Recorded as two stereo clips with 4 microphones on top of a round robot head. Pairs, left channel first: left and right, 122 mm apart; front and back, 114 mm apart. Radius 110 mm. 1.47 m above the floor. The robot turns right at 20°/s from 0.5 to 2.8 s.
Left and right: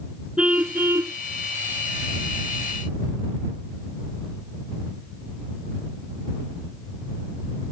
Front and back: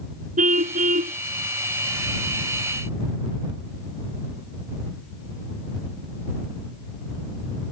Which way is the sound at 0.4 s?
175° right.